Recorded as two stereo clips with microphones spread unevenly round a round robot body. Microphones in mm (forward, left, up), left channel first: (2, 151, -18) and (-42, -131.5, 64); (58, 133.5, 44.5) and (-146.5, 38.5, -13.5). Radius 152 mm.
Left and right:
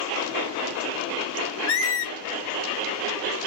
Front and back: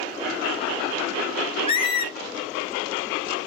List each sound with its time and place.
1.7 s a squeak: 35° left, 0.7 m